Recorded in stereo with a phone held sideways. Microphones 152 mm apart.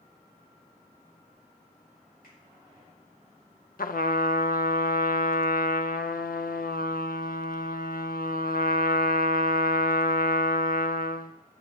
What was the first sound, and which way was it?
A finger snap, 75° left (ahead or behind).